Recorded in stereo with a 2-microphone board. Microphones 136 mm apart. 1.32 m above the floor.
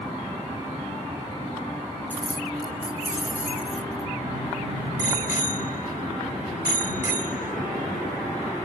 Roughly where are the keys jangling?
Centre.